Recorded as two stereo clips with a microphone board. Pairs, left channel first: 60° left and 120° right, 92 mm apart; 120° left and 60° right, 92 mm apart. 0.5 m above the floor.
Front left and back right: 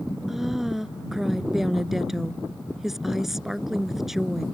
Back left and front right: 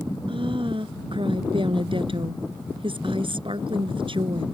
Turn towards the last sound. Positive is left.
turn(degrees=-35)